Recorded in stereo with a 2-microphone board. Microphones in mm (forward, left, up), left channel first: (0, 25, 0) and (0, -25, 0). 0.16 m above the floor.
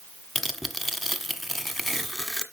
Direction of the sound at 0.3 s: Centre (ahead or behind).